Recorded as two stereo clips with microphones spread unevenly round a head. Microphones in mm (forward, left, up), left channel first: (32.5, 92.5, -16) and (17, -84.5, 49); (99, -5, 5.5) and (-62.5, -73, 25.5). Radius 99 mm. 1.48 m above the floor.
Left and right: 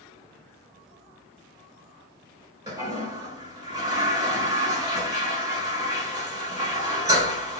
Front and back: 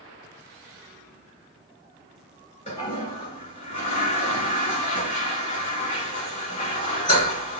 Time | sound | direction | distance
2.7 | a toilet flushing | 25° right | 1.4 m